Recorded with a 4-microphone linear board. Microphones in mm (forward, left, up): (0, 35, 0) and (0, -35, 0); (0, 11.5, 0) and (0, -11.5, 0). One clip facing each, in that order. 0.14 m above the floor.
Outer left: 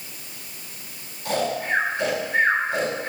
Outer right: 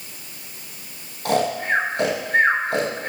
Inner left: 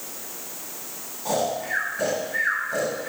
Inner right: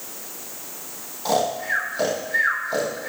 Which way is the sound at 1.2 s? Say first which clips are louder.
Outer right 3 dB, inner right 3 dB; 70° right (ahead or behind).